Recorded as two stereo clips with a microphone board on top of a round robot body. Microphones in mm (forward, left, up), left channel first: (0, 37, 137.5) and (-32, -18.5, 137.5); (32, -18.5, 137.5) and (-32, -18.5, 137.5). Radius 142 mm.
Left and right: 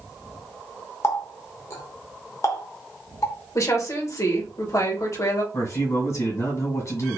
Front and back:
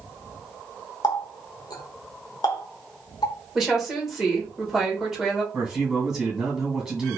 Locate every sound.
1.0 s a running tap: 15° left, 0.8 m
3.5 s a woman speaking: 95° left, 1.5 m
5.5 s a man speaking: 105° left, 1.9 m